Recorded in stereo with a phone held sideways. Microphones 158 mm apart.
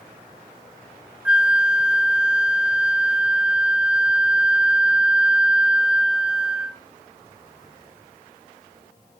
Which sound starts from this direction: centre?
A flute, at 1.2 s.